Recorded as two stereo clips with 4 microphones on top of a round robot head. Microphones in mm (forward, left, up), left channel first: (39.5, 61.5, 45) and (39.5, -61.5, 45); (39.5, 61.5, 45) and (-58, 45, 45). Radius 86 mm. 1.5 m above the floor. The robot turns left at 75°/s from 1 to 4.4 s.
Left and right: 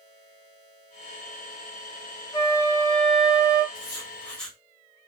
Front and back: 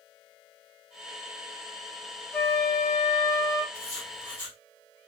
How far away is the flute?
About 1.5 m.